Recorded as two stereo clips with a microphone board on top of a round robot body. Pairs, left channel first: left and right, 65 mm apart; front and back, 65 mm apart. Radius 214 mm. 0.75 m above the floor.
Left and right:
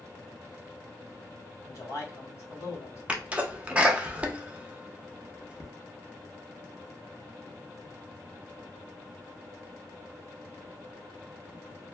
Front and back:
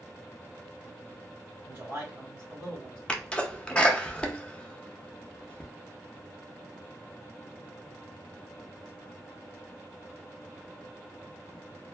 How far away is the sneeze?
About 1.0 m.